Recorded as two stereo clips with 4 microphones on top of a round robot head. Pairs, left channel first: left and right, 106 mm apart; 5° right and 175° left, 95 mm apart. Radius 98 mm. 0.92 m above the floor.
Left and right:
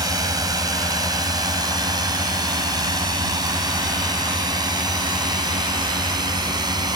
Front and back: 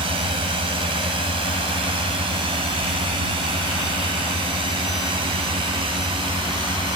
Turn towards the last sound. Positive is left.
turn(degrees=-140)